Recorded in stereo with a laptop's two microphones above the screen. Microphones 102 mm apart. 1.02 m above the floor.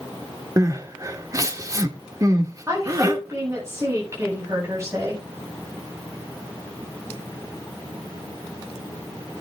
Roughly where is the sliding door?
No sliding door in this recording.